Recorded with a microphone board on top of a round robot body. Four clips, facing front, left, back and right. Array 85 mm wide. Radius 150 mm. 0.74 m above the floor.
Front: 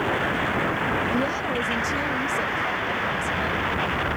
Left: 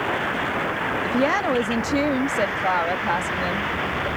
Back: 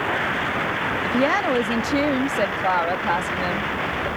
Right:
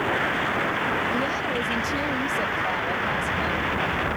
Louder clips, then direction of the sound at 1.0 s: Left 5 dB, back 4 dB; 145° left.